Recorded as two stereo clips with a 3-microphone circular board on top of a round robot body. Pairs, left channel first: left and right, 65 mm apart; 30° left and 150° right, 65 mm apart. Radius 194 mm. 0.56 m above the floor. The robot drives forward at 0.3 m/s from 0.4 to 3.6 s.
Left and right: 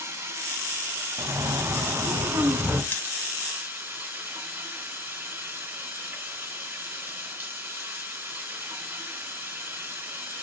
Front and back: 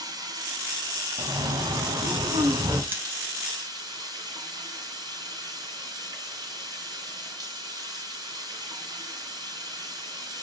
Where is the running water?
145° right, 2.5 m; by 10.4 s 155° right, 3.5 m.